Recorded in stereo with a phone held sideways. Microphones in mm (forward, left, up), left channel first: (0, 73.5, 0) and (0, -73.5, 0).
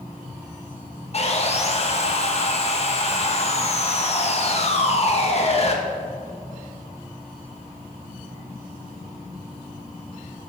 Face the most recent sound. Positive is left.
turn(degrees=45)  # may be behind; listen again after turning